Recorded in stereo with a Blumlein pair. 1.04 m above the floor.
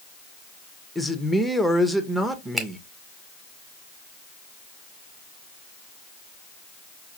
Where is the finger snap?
10° right, 1.3 m.